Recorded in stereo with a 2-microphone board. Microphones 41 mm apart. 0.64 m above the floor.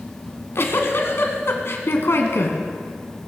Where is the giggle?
80° left, 1.7 m.